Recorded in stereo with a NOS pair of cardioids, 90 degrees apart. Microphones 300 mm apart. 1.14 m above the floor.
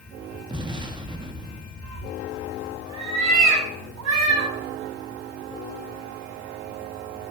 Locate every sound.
0.5 s an explosion: 15° right, 1.8 m
1.8 s a cat meowing: 65° right, 5 m